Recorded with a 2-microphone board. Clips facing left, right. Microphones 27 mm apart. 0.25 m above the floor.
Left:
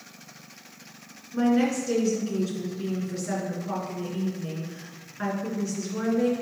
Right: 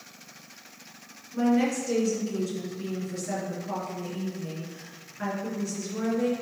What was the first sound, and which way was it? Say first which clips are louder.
A woman speaking: left 1 dB; 25° left (ahead or behind).